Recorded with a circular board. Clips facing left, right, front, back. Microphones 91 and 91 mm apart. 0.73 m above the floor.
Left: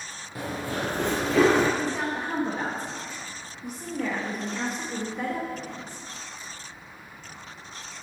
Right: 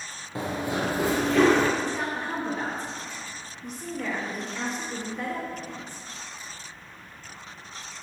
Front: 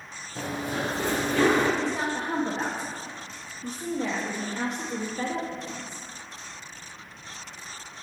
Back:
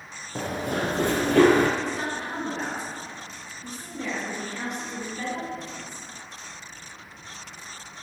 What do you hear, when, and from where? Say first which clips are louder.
0.3 s running footsteps: right 3 dB, back 3 dB; 150° right, 1.7 m; by 1.7 s 160° left, 1.3 m
1.8 s a woman speaking: left 1 dB, front 2 dB; 15° left, 1.1 m